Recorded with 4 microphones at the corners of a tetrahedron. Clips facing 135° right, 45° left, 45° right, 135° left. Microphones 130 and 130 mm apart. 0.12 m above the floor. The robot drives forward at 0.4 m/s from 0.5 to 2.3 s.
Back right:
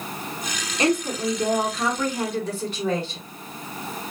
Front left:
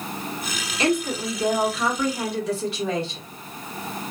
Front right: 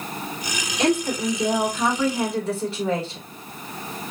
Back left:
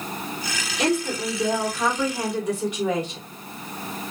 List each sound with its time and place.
0.8 s a woman speaking: 140° right, 1.4 m; by 3.2 s 155° right, 1.8 m